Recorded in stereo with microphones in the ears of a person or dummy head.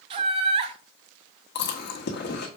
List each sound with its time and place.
0.1 s laughter: 35° right (ahead or behind), 0.6 m
1.6 s chewing: 50° left (ahead or behind), 1.3 m